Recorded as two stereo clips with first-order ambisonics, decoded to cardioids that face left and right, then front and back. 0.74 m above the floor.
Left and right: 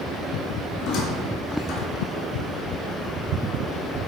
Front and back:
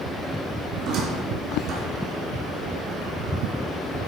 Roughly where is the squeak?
Behind left.